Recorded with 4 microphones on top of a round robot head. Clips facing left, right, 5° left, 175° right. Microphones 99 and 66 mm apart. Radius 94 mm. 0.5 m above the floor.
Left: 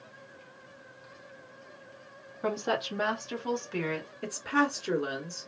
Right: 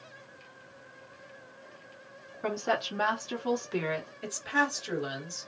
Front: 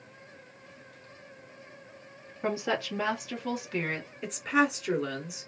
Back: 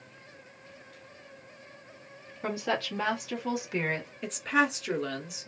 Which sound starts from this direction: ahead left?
A woman speaking, at 2.4 s.